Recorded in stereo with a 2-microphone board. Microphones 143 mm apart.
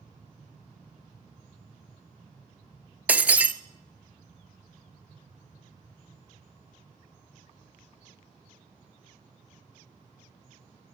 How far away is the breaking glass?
About 0.5 m.